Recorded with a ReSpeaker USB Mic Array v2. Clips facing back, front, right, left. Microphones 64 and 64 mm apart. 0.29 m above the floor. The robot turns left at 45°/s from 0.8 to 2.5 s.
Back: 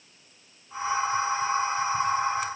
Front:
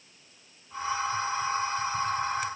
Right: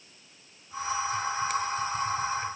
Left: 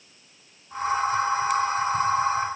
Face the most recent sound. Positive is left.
No sound to turn to.